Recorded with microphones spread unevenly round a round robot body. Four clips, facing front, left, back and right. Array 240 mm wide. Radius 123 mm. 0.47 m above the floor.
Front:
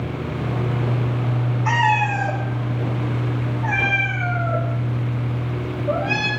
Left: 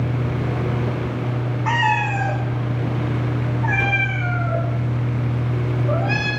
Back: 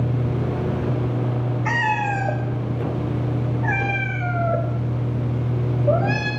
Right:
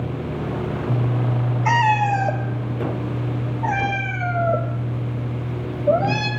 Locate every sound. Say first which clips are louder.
1.6 s a cat meowing: right 3 dB, front 4 dB; 130° right, 0.6 m